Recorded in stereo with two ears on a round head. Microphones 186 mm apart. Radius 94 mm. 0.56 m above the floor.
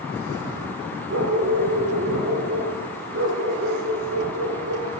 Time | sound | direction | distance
1.1 | a dog barking | 60° right (ahead or behind) | 6 m